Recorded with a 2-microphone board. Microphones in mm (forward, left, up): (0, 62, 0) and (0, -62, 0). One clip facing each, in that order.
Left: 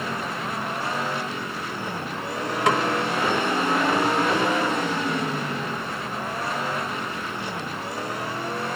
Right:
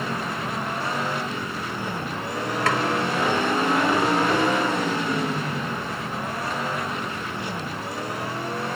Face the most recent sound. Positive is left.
turn(degrees=20)  # may be behind; listen again after turning